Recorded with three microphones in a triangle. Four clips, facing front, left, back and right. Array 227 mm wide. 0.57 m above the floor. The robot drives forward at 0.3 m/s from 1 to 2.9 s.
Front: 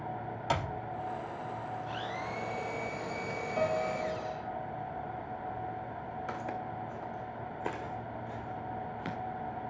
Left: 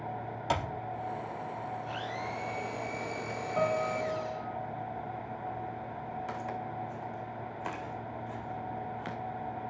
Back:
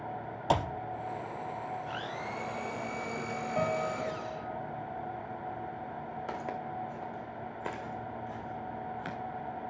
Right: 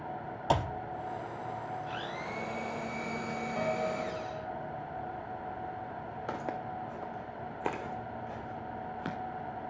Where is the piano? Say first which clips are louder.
Left 4 dB, front 1 dB; 175° left, 1.6 m.